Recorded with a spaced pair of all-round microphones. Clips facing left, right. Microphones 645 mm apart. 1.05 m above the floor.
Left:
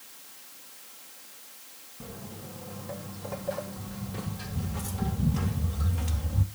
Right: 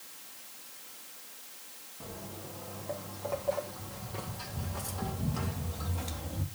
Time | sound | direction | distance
2.0 | footsteps | 40° left (ahead or behind) | 3 m